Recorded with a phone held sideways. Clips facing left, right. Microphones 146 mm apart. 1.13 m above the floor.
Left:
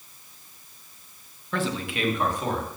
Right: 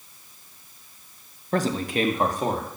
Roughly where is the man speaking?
Right.